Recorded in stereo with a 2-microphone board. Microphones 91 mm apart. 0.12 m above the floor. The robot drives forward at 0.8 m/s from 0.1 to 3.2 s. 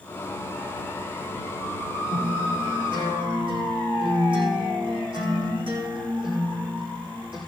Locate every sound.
2.1 s a guitar: 70° right (ahead or behind), 8 m; by 7.4 s 65° right (ahead or behind), 8 m